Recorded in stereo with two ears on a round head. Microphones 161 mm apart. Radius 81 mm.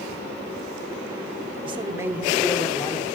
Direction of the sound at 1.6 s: 30° right (ahead or behind).